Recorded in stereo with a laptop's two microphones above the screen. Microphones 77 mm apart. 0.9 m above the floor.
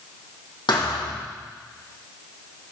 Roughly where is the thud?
Left.